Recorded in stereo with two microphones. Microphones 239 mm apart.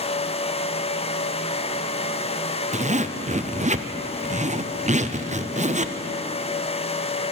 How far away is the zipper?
About 0.6 m.